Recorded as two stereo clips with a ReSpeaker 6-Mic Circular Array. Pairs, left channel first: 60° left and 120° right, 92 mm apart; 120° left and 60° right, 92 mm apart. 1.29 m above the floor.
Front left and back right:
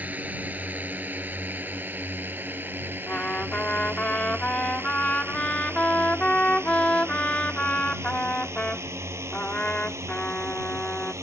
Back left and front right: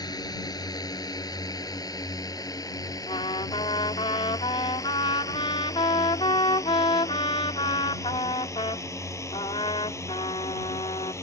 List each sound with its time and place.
0.0 s a drone: 165° left; by 11.2 s straight behind
3.1 s a trumpet: 135° left